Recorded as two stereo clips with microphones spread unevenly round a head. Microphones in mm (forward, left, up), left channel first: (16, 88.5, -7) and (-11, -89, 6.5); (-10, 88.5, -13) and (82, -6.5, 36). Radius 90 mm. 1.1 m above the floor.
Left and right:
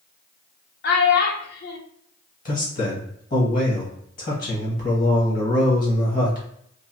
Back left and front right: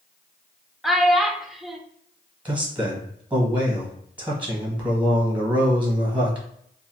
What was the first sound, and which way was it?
A child speaking, 50° left.